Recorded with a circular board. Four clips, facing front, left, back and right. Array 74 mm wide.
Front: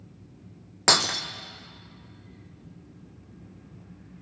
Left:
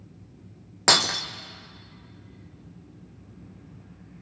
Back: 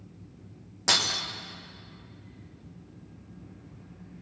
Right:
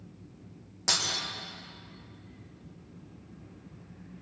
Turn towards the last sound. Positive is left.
turn(degrees=50)